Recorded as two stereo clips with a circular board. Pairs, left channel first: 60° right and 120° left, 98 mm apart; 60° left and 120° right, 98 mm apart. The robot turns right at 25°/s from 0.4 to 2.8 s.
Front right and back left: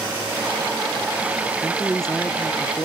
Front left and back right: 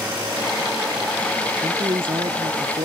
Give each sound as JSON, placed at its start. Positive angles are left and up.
{"t": 1.6, "sound": "a woman speaking", "azimuth_deg": -155}